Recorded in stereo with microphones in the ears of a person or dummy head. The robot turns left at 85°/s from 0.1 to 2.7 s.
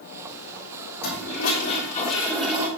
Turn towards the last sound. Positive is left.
turn(degrees=-20)